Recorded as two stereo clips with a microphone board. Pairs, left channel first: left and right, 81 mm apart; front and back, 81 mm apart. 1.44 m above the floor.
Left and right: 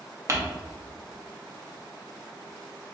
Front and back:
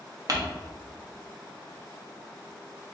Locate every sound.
0.3 s crumpling: 140° right, 0.6 m